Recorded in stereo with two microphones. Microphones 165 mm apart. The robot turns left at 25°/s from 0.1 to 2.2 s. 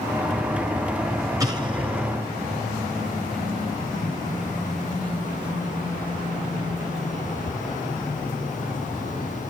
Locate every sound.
1.4 s an explosion: 20° right (ahead or behind), 4 m; by 2.0 s 35° right (ahead or behind), 4 m